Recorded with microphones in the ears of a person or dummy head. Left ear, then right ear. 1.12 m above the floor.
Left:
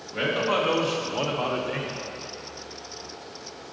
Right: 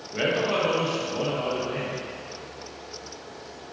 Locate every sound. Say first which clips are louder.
0.1 s a man speaking: even; centre (ahead or behind), 1.1 m; by 2.0 s 75° left (ahead or behind), 0.8 m